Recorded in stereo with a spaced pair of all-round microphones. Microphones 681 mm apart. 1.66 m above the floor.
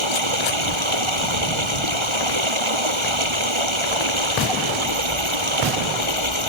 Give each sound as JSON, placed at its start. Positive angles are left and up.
{"t": 0.0, "sound": "running water", "side_deg": -40}